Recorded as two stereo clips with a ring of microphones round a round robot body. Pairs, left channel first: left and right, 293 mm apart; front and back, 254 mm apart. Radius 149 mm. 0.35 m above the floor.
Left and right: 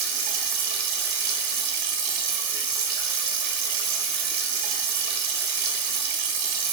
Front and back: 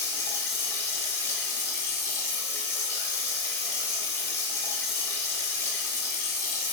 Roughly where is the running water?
Right.